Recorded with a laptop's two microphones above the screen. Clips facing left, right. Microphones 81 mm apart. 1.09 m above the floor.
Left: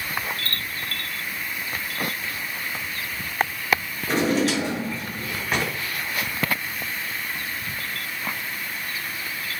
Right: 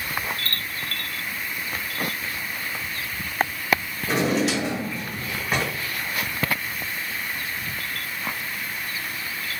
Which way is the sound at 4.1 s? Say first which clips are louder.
Left 1 dB; 5° right (ahead or behind).